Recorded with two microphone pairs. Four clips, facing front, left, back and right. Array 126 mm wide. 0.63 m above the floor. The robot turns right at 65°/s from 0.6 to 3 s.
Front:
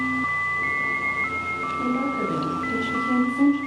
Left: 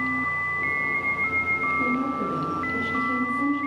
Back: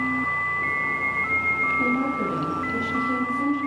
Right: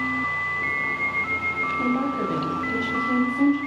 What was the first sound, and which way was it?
A woman speaking, 110° right.